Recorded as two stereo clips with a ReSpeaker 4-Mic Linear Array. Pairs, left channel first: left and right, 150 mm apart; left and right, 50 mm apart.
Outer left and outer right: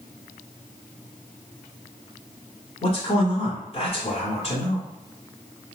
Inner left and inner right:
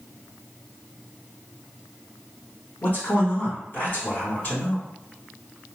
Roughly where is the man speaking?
Left.